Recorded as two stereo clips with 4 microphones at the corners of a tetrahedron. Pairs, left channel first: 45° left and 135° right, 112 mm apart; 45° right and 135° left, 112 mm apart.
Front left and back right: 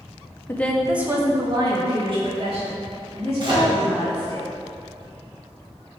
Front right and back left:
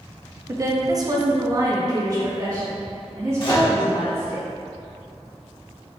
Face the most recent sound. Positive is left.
turn(degrees=-90)